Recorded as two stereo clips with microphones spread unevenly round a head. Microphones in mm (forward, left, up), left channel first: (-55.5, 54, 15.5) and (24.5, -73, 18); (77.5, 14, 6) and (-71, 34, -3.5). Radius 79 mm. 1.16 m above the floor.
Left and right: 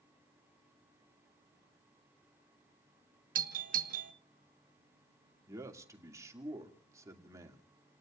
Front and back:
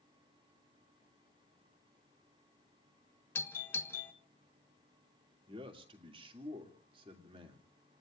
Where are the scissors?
I don't hear scissors.